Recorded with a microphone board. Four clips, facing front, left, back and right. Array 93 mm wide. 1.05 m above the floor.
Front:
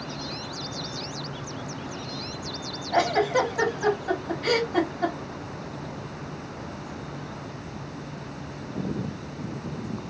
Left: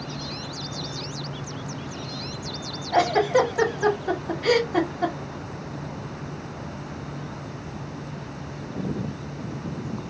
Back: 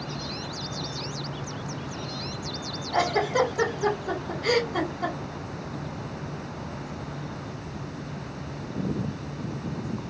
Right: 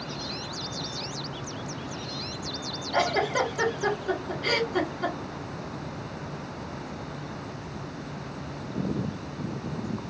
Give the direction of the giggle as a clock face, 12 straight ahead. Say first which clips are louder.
Left 6 dB, front 2 dB; 10 o'clock.